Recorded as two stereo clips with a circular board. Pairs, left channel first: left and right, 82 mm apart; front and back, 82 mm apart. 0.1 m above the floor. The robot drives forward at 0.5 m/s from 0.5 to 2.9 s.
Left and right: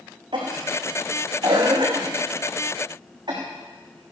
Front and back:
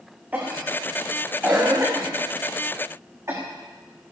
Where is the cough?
110° right, 5.5 m; by 3.4 s 120° right, 6 m.